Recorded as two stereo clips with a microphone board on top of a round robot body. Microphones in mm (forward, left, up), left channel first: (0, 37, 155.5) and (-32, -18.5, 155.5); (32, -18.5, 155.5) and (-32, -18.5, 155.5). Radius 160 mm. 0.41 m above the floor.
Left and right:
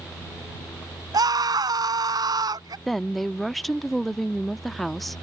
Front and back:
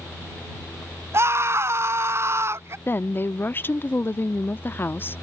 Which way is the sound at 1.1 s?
130° right.